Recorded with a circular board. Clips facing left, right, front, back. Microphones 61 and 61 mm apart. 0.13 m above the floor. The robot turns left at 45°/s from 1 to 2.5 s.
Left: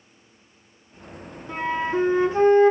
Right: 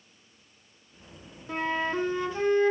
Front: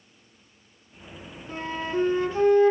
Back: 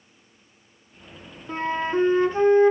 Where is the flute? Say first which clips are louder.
Left 4 dB, back 5 dB; straight behind, 1.7 m; by 2.7 s 130° left, 1.7 m.